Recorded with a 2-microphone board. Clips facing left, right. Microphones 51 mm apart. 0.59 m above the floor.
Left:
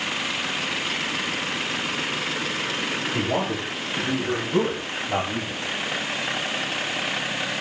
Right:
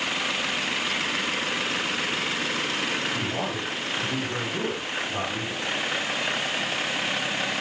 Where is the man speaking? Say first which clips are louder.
Left 4 dB; 65° left (ahead or behind), 4 m; by 5.6 s 70° left (ahead or behind), 3.5 m.